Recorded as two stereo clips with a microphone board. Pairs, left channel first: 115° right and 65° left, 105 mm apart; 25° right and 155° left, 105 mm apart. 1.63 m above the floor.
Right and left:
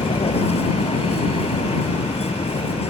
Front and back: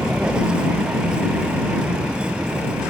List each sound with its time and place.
0.0 s a vehicle: 125° right